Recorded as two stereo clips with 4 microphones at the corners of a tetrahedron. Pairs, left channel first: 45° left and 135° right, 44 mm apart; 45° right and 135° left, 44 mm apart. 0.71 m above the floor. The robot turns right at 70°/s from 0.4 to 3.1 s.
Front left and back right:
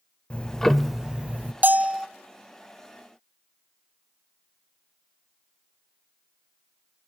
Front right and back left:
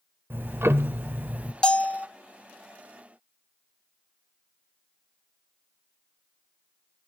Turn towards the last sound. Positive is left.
turn(degrees=-5)